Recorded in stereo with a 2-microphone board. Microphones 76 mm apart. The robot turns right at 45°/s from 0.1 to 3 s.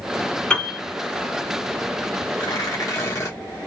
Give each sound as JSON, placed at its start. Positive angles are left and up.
{"t": 0.5, "sound": "a piano", "side_deg": 15, "distance_m": 1.6}
{"t": 2.4, "sound": "tearing paper", "side_deg": 70, "distance_m": 1.7}